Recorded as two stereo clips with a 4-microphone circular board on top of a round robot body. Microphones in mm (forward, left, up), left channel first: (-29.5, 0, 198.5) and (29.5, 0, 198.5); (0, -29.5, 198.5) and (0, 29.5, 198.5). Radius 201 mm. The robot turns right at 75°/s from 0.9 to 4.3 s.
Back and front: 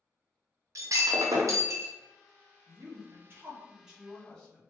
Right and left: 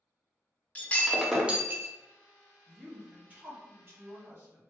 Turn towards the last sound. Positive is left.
turn(degrees=105)